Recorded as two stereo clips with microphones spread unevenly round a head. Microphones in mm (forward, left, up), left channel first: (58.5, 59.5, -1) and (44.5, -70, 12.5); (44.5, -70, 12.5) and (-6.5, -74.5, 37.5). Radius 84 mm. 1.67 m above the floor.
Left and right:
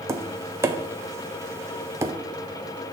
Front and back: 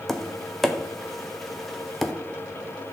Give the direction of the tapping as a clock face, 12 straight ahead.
4 o'clock.